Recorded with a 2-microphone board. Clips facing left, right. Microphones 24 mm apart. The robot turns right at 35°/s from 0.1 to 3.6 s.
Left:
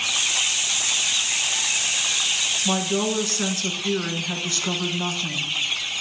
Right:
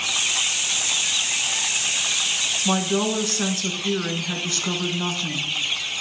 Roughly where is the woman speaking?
Centre.